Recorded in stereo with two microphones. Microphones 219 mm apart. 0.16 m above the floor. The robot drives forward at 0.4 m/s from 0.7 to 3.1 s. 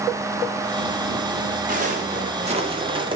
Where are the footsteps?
35° right (ahead or behind), 5.5 m; by 3.2 s 20° right (ahead or behind), 5 m.